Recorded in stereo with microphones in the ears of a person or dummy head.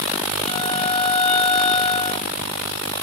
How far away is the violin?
About 1.0 m.